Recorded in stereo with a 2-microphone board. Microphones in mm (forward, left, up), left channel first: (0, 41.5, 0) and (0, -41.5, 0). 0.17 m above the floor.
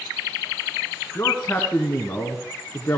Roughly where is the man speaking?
Left.